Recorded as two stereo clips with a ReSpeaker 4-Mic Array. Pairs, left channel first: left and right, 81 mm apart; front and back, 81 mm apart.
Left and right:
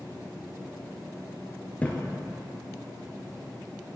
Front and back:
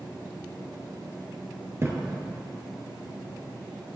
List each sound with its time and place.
1.8 s a thud: 150° left, 0.9 m